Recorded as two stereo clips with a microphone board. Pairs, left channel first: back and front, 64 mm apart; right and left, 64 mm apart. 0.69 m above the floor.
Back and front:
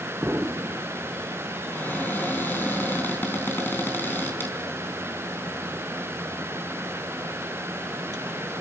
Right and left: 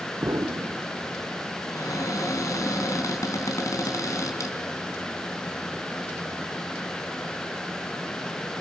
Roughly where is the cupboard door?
Behind right.